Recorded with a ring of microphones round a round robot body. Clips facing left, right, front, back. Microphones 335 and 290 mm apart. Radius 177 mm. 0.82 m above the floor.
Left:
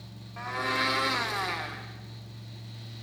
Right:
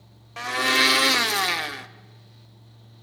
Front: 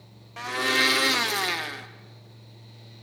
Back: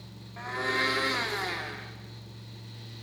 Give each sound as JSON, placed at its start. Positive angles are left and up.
{"t": 0.4, "sound": "a blender", "azimuth_deg": -50, "distance_m": 0.9}